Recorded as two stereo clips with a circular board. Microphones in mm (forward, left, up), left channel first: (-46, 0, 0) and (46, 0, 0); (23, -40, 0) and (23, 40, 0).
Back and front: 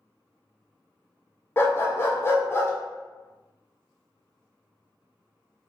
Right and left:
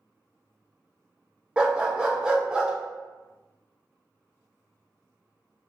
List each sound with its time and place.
1.6 s a dog barking: 155° left, 0.5 m